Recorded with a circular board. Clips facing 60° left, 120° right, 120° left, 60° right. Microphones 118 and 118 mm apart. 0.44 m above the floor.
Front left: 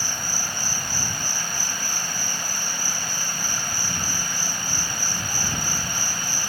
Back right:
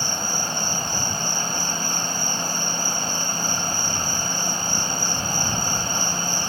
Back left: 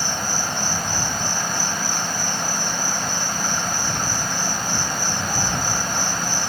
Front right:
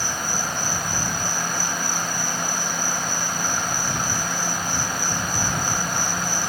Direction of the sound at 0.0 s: 175° left.